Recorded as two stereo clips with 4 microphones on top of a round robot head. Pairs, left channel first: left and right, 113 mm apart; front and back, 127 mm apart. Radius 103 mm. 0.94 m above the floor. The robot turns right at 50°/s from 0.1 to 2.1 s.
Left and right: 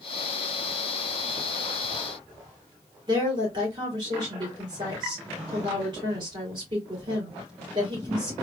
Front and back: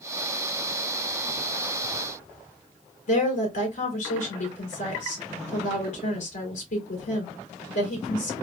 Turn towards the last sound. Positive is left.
turn(degrees=-35)